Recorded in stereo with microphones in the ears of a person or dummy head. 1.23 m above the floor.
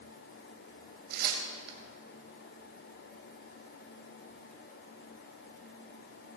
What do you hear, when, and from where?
1.1 s tearing paper: 60° right (ahead or behind), 2.5 m